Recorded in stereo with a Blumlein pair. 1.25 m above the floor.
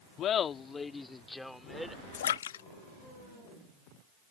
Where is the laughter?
30° left; by 2.0 s 5° right.